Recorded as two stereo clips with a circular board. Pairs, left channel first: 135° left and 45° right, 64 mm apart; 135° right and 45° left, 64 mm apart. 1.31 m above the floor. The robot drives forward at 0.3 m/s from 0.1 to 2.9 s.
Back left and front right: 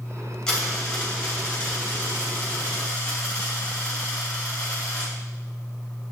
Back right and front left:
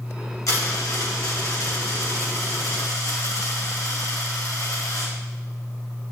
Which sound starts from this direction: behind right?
A dropped coin, at 0.5 s.